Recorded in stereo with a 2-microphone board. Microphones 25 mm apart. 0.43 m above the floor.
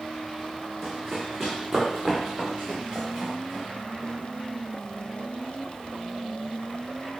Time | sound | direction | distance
0.8 | running footsteps | centre (ahead or behind) | 1.7 m